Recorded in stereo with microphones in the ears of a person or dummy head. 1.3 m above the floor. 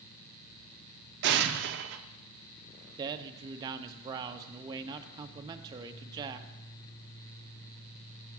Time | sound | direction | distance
1.2 | an explosion | 55° right (ahead or behind) | 0.8 m
3.0 | a man speaking | 25° right (ahead or behind) | 0.8 m